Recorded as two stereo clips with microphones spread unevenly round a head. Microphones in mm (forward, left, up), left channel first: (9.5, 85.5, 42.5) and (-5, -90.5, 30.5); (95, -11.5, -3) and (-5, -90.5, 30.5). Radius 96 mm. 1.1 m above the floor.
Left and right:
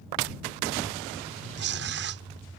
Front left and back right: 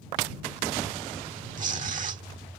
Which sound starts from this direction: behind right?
Tearing paper, at 1.6 s.